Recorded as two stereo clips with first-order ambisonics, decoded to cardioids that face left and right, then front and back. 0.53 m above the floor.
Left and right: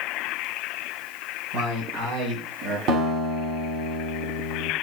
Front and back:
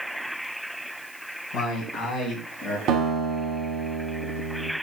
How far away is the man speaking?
About 4 m.